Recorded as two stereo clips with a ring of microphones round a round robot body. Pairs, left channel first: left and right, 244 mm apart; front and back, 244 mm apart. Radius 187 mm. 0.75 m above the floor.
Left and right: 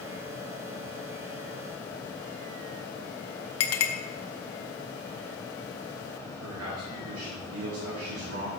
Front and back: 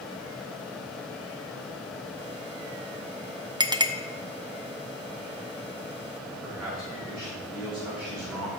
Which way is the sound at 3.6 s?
105° left.